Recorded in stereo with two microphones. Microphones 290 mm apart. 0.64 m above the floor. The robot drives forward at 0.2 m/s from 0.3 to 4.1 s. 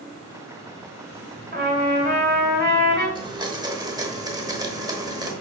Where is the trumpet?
30° right (ahead or behind), 2.5 m; by 3.0 s 35° right (ahead or behind), 2 m.